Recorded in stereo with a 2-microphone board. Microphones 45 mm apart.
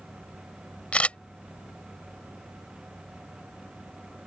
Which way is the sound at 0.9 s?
30° left (ahead or behind).